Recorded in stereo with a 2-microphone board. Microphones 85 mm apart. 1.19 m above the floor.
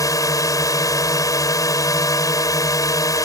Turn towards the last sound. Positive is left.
turn(degrees=40)  # may be behind; listen again after turning